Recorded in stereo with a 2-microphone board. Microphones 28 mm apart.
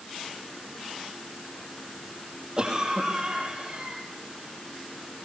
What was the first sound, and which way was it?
A cough, 30° right (ahead or behind).